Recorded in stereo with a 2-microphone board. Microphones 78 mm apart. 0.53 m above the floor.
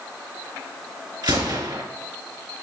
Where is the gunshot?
65° right (ahead or behind), 2.5 m.